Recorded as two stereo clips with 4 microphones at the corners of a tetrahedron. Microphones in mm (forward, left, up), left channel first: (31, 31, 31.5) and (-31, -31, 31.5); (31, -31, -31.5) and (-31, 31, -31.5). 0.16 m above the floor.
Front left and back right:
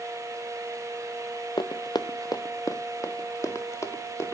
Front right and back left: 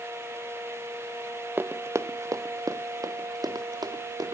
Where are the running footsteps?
70° left, 0.6 m; by 4.3 s 100° left, 2 m.